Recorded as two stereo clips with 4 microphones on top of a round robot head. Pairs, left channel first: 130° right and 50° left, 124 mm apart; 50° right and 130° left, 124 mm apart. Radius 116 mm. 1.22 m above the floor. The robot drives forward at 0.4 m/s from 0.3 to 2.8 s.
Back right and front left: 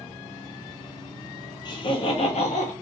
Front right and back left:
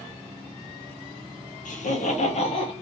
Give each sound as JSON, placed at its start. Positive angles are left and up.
{"t": 1.6, "sound": "laughter", "azimuth_deg": -70, "distance_m": 0.9}